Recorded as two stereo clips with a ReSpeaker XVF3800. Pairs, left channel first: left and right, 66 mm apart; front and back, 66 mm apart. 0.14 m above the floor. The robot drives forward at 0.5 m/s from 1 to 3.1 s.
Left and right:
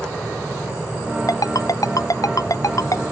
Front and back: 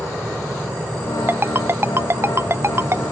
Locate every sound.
1.3 s a ringtone: 125° left; by 3.0 s 130° left